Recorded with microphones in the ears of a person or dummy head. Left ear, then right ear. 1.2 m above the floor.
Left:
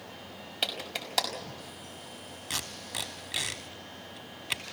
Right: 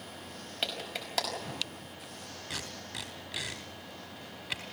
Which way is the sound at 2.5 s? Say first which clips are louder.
Left 5 dB; 15° left (ahead or behind).